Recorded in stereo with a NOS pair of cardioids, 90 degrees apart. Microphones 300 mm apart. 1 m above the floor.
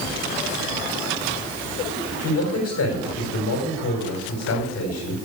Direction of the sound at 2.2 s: 55° left.